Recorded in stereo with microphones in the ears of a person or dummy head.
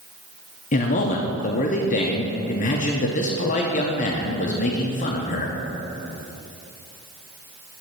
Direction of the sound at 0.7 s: 35° left (ahead or behind).